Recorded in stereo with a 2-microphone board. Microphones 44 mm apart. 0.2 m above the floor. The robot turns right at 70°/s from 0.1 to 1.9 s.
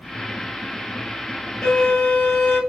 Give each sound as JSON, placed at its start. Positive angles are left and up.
{"t": 1.6, "sound": "a violin", "side_deg": 10, "distance_m": 1.2}